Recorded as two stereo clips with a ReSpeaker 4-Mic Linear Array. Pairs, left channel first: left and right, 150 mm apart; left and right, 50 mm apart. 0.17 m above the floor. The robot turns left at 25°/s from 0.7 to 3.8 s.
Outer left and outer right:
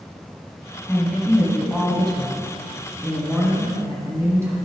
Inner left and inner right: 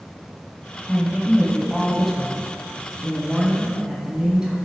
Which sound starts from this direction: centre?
A woman speaking, at 0.9 s.